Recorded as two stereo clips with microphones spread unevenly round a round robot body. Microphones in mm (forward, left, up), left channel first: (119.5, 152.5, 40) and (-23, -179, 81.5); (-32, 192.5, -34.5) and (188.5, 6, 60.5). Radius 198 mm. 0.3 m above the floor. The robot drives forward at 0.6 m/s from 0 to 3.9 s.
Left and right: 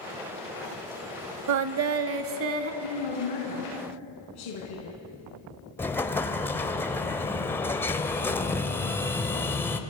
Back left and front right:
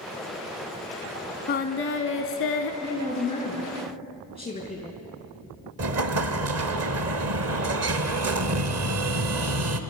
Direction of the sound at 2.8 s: 65° left.